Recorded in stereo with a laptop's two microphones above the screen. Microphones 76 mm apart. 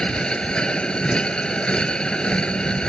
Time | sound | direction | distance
0.0 | a machine running | 10° left (ahead or behind) | ?